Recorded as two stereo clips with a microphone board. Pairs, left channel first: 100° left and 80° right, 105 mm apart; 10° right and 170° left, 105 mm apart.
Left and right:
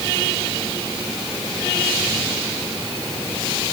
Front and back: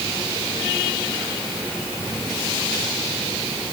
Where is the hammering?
I don't hear hammering.